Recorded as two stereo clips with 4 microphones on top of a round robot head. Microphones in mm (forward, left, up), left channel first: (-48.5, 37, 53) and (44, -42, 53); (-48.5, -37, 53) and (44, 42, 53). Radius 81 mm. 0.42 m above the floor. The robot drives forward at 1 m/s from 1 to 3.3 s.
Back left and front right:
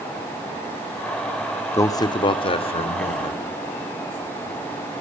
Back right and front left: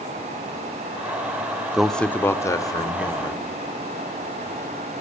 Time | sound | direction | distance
1.7 | a man speaking | 120° left | 0.9 m